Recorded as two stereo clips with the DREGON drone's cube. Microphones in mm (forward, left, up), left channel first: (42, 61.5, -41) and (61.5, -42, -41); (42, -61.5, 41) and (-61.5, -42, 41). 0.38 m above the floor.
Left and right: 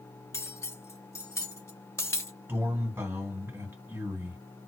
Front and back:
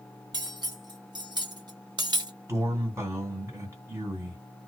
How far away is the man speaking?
About 1.9 m.